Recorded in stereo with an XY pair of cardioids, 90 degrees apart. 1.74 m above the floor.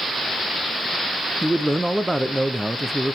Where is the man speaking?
15° right, 0.8 m.